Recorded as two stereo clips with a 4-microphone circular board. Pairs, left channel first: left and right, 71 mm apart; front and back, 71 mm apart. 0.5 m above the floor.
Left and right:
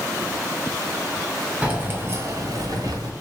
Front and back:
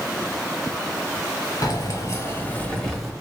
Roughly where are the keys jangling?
Ahead.